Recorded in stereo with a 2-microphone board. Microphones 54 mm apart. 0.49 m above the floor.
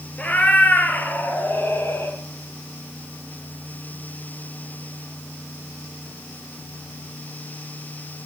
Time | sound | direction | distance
0.2 | a cat meowing | 25° left (ahead or behind) | 3.5 m